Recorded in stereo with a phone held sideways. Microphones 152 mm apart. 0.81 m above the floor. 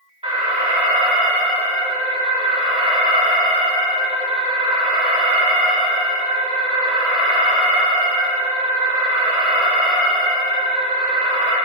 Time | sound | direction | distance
0.2 | an alarm | 40° right (ahead or behind) | 1.9 m